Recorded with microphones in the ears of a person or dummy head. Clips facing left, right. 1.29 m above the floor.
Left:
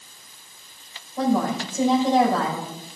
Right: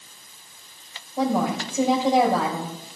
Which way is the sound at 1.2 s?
10° right (ahead or behind).